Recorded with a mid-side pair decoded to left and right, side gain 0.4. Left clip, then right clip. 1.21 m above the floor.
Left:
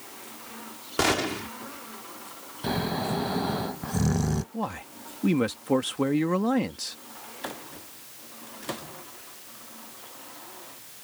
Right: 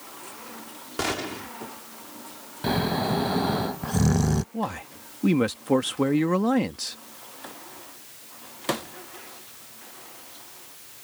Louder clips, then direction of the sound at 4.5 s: Right 2 dB; 15° right.